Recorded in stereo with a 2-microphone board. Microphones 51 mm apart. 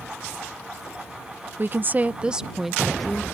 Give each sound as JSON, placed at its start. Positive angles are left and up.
{"t": 1.6, "sound": "a woman speaking", "side_deg": -40}